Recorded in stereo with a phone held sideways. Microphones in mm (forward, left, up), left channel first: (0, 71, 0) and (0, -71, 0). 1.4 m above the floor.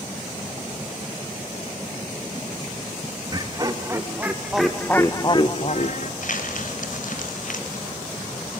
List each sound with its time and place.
3.3 s laughter: 30° right (ahead or behind), 2.5 m; by 6.1 s 65° left (ahead or behind), 1.6 m
6.2 s crumpling: 65° left (ahead or behind), 3 m